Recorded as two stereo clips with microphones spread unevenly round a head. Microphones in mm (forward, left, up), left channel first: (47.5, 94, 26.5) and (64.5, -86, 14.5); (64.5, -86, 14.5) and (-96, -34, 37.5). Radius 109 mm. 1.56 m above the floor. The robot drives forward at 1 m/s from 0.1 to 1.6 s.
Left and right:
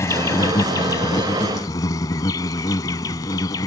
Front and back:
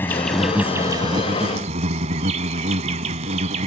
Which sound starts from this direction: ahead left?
An insect, at 0.0 s.